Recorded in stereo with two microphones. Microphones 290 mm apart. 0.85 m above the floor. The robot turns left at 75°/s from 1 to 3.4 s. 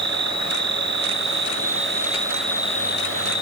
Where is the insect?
75° right; by 3.4 s 105° left.